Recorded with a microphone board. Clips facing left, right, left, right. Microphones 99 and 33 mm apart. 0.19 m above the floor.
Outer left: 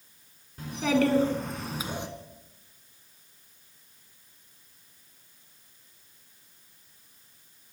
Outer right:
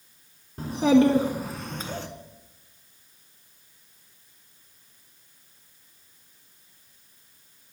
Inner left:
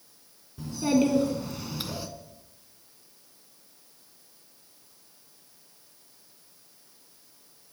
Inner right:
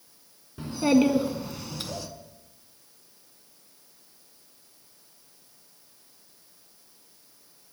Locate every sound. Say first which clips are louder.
0.6 s a child speaking: outer right 6 dB, inner right 3 dB; 40° right (ahead or behind), 1.4 m; by 2.1 s 20° left (ahead or behind), 1.4 m